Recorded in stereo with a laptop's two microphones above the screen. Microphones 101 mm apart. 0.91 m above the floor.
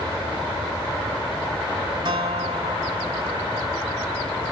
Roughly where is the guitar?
Right.